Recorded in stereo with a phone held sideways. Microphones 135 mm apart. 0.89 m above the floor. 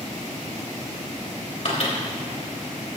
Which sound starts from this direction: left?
A microwave, at 1.6 s.